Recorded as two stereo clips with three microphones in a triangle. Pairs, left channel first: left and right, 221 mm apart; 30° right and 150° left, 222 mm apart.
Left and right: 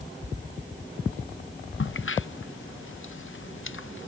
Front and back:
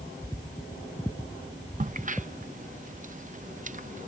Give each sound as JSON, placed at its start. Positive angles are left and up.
{"t": 1.8, "sound": "a crack", "azimuth_deg": 105}